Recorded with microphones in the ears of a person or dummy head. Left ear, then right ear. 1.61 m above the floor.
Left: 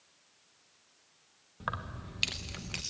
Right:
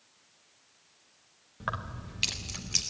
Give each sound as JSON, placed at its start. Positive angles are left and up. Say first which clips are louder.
{"t": 1.6, "sound": "keys jangling", "louder": "right 2 dB", "side_deg": 5, "distance_m": 1.2}